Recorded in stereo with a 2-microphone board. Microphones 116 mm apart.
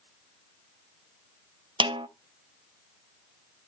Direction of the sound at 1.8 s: 45° right (ahead or behind).